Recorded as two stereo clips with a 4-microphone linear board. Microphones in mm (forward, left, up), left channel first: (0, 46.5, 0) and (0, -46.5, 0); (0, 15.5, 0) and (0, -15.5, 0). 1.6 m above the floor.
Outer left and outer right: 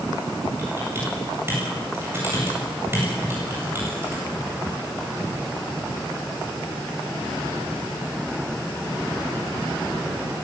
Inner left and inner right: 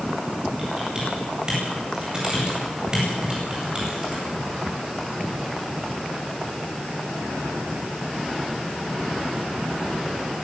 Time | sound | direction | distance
0.6 | typing on a keyboard | 25° right (ahead or behind) | 9 m